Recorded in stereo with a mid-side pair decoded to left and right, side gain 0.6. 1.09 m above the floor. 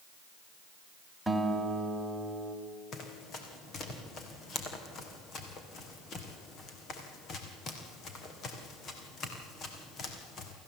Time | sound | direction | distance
1.3 | a guitar | straight ahead | 3 m
2.9 | running footsteps | 45° left | 3.5 m